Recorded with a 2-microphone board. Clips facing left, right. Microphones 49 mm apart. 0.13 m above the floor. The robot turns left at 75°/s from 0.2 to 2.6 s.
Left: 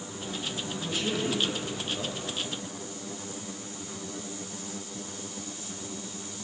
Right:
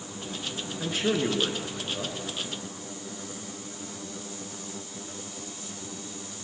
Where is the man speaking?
75° right, 2.0 m; by 2.2 s straight behind, 2.0 m.